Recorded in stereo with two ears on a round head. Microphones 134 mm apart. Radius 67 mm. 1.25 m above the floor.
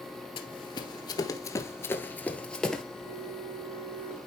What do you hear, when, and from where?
0.4 s running footsteps: 35° left (ahead or behind), 1.5 m; by 2.8 s 5° left (ahead or behind), 1.6 m
3.0 s a flute: 75° right (ahead or behind), 6.5 m